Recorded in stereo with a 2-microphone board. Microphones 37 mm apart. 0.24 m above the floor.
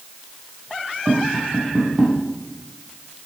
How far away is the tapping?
About 7 m.